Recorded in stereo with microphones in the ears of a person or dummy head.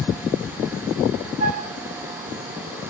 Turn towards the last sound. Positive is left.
turn(degrees=-40)  # may be behind; listen again after turning